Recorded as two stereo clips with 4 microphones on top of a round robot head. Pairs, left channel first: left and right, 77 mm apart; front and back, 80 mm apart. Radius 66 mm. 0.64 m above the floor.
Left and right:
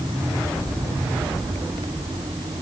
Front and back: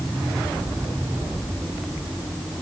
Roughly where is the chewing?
I don't hear chewing.